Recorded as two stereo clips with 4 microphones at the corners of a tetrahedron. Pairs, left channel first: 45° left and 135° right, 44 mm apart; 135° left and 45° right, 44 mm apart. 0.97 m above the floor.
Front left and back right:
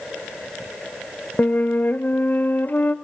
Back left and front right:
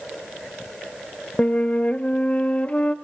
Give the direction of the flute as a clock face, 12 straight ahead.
9 o'clock.